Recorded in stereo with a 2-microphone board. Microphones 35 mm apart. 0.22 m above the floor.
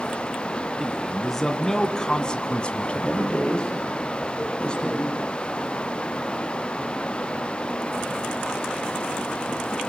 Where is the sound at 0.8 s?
5° left (ahead or behind), 2 m; by 3.3 s 40° left (ahead or behind), 1.6 m.